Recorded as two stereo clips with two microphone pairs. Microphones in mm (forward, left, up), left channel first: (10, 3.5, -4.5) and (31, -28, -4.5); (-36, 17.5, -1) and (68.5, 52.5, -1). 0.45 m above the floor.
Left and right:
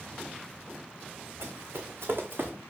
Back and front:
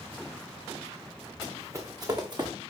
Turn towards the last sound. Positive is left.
turn(degrees=-25)